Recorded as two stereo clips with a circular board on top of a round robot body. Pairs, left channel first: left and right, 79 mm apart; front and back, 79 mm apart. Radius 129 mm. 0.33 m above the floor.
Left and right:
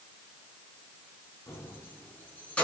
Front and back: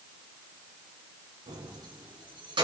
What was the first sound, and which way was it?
Keys jangling, 150° left.